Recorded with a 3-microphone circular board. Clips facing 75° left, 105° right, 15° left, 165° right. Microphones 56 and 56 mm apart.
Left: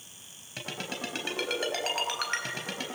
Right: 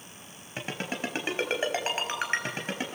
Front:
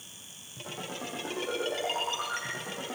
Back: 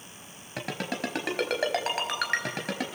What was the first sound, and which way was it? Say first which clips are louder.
A ringtone: right 3 dB, back 7 dB; 165° right.